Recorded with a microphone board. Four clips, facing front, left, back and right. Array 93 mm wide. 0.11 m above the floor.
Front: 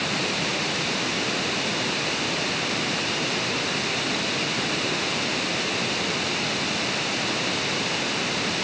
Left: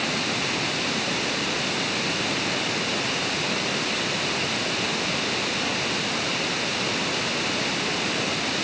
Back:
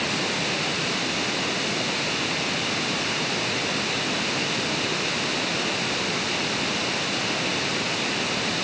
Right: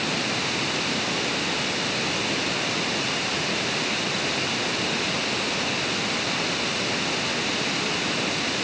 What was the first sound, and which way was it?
Only background noise.